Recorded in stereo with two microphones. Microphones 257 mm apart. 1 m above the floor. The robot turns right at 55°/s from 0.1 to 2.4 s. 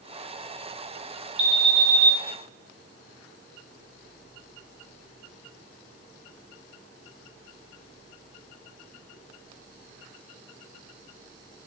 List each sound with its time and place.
1.4 s an alarm: 155° right, 2 m; by 2.1 s 115° right, 2 m